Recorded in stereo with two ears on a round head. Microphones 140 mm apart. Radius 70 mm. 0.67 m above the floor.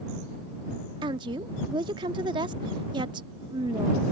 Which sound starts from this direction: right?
A woman speaking, at 1.0 s.